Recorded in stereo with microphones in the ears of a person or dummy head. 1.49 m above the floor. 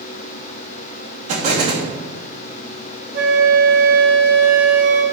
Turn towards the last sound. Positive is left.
turn(degrees=-50)  # may be behind; listen again after turning